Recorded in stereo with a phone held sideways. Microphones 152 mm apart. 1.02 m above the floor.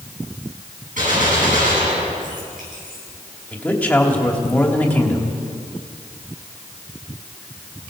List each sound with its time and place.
1.0 s a gunshot: 65° right (ahead or behind), 9 m
3.5 s a man speaking: 10° left (ahead or behind), 3 m